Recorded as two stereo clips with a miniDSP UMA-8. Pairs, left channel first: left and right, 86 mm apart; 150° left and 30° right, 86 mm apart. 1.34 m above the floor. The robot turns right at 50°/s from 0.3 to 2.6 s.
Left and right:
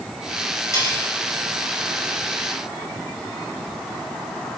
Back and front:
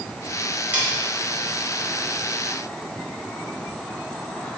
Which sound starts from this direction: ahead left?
Cutlery clinking, at 0.7 s.